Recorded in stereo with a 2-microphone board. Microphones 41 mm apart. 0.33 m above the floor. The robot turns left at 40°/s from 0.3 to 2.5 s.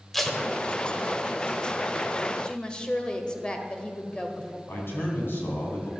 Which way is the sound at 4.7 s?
60° left (ahead or behind).